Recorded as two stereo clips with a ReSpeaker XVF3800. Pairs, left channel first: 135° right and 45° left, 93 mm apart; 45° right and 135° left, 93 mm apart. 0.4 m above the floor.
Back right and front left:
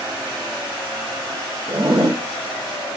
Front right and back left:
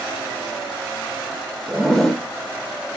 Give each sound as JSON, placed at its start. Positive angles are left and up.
{"t": 1.7, "sound": "a zipper", "azimuth_deg": 40, "distance_m": 1.0}